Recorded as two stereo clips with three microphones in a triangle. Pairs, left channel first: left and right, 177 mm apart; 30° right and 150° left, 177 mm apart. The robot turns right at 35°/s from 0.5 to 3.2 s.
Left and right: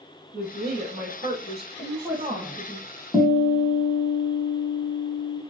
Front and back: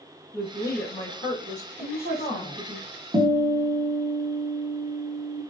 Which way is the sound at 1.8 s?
25° right.